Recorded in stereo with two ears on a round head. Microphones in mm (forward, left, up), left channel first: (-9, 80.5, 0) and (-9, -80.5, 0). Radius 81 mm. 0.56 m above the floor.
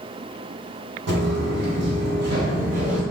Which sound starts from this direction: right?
Footsteps, at 1.1 s.